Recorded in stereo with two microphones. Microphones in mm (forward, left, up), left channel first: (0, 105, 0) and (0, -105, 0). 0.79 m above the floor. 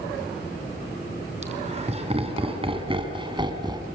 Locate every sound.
1.4 s laughter: 30° right (ahead or behind), 6 m; by 3.8 s 20° right (ahead or behind), 5.5 m